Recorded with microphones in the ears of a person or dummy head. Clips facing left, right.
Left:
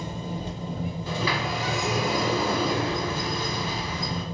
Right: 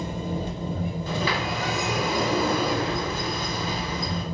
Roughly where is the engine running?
Right.